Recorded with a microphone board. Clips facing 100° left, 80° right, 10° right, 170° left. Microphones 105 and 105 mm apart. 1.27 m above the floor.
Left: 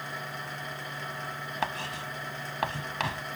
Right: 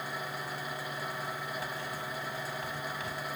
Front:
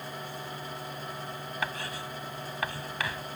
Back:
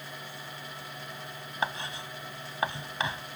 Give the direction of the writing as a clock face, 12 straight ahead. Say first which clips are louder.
Left 4 dB, back 3 dB; 9 o'clock.